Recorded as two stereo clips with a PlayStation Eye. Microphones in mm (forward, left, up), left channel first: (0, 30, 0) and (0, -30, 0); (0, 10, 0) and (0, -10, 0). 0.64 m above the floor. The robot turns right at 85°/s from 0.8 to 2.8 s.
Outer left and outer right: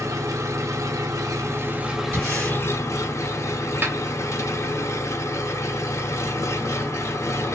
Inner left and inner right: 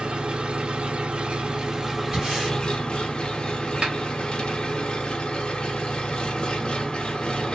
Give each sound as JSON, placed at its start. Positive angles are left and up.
{"t": 0.0, "sound": "an engine running", "azimuth_deg": -115, "distance_m": 0.8}
{"t": 2.1, "sound": "breathing", "azimuth_deg": -135, "distance_m": 2.5}
{"t": 3.8, "sound": "a snare drum", "side_deg": -35, "distance_m": 1.0}